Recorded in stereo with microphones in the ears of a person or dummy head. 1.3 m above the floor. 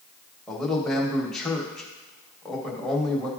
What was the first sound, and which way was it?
A man speaking, centre (ahead or behind).